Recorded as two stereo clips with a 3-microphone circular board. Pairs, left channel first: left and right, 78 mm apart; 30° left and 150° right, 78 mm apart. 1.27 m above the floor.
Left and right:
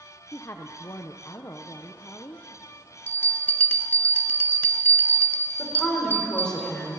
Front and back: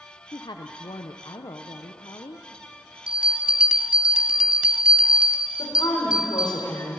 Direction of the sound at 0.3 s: 45° left.